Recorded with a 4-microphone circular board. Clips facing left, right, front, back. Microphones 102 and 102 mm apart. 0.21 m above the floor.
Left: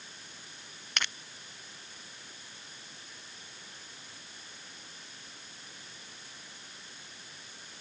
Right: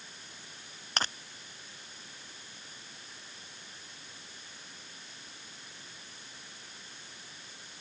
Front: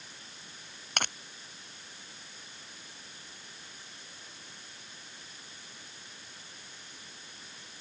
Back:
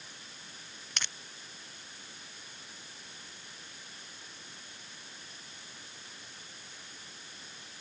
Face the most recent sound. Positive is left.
turn(degrees=-35)